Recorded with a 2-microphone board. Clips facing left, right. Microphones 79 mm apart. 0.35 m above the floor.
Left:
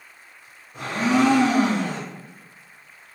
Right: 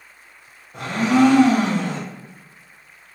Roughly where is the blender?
Right.